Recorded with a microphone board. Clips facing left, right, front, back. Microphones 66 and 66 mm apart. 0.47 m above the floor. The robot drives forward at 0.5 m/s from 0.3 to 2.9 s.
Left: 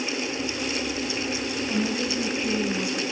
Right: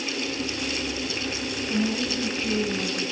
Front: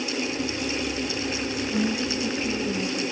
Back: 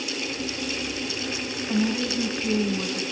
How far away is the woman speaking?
About 4 m.